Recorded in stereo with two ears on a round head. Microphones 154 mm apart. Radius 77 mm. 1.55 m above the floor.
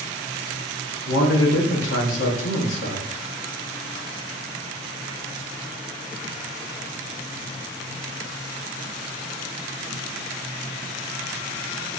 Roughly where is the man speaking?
Left.